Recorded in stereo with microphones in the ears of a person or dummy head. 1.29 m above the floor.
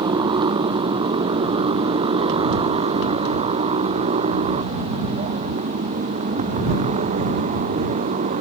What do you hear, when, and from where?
0.0 s a motorcycle: 20° right (ahead or behind); by 8.4 s 35° right (ahead or behind)